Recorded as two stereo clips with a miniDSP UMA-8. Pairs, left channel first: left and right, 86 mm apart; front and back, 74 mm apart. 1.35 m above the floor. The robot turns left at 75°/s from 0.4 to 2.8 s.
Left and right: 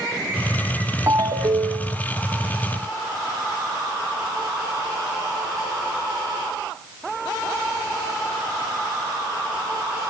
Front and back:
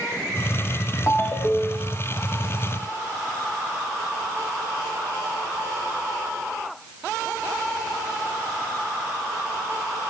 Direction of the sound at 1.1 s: 35° right.